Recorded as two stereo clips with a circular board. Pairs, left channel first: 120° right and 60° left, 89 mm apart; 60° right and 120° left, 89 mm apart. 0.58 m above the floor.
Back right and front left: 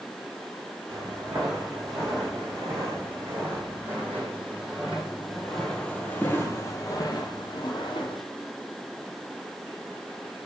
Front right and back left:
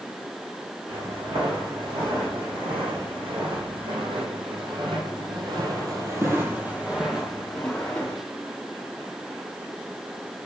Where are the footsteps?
110° left, 3.5 m; by 8.2 s 135° right, 1.5 m.